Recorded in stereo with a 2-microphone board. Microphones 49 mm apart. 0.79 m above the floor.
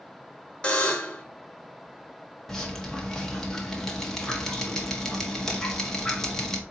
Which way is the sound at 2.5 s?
10° left (ahead or behind).